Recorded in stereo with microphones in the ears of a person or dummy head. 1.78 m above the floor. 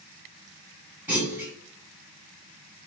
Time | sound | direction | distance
1.1 | a clunk | 10° right (ahead or behind) | 4.5 m